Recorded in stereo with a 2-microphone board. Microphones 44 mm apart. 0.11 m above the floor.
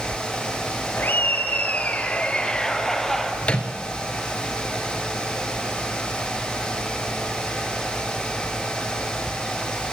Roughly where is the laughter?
Left.